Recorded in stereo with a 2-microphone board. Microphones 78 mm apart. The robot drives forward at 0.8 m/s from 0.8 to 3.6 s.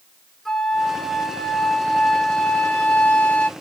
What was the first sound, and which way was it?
A flute, 5° left (ahead or behind).